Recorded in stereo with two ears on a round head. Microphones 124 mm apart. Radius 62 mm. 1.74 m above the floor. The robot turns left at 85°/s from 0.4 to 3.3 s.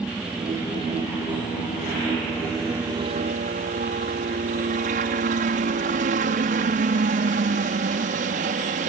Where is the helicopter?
175° right; by 8.9 s 60° right.